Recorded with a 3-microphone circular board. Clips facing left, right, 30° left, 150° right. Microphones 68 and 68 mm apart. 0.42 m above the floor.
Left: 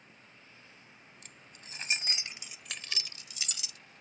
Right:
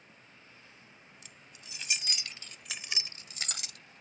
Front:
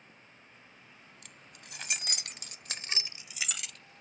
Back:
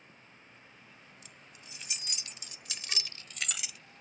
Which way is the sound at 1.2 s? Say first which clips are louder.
Left 1 dB, front 1 dB; 55° left.